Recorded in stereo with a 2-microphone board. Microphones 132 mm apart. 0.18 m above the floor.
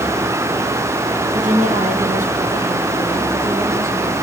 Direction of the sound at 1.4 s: 75° right (ahead or behind).